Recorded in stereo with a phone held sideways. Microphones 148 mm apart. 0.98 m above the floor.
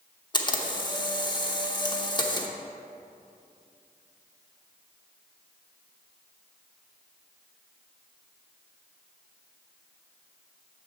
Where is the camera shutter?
30° left (ahead or behind), 0.8 m.